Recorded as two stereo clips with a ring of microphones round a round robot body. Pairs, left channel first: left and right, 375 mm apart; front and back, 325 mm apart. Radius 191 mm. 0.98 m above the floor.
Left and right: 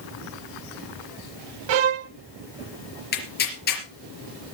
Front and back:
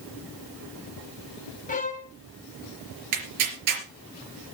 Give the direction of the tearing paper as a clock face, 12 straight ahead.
7 o'clock.